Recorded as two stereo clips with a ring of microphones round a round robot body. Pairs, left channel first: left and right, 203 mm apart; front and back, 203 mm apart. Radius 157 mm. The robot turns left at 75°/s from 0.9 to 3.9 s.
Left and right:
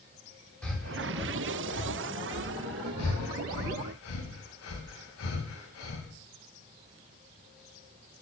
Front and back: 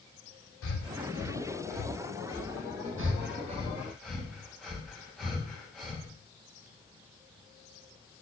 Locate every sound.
0.6 s breathing: 5° left, 4.5 m; by 2.9 s 140° right, 4.5 m
3.0 s breathing: 160° left, 3.5 m; by 6.1 s 90° left, 3.5 m